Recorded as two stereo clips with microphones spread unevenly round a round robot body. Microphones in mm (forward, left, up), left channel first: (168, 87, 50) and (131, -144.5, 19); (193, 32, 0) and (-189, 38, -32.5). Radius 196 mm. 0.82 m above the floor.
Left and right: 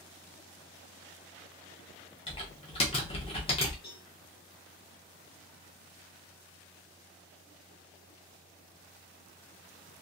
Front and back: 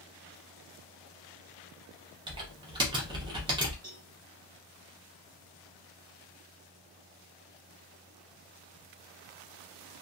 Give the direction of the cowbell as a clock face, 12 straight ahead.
8 o'clock.